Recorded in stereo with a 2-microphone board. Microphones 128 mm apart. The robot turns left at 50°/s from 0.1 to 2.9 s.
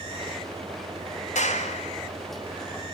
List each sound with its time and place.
1.4 s a clap: 80° left, 4.5 m; by 1.9 s 70° left (ahead or behind), 4.5 m